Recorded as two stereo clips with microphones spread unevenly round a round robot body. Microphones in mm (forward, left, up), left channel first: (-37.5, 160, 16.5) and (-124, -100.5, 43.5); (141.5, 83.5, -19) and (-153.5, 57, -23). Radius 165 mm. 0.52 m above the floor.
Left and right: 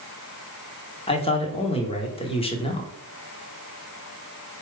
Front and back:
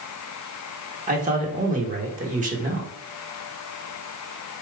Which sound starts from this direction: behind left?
A man speaking, at 1.1 s.